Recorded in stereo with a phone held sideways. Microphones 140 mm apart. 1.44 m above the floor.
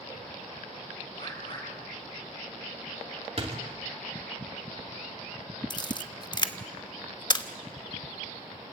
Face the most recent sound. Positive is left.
turn(degrees=35)  # may be behind; listen again after turning